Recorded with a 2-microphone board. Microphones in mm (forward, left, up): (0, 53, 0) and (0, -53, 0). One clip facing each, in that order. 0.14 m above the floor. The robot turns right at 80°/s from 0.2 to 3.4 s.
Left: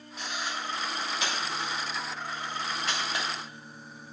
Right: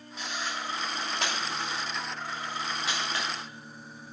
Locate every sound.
0.2 s a camera shutter: 40° left (ahead or behind), 3 m; by 3.2 s 25° left (ahead or behind), 3 m